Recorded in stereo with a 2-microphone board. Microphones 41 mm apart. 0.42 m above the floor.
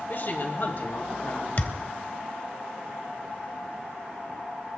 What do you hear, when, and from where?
0.1 s a woman speaking: 55° left (ahead or behind), 2.5 m
1.6 s a thud: 40° left (ahead or behind), 0.8 m